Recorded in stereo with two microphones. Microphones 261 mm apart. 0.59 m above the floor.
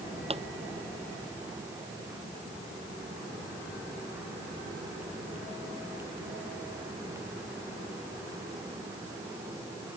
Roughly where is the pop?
Right.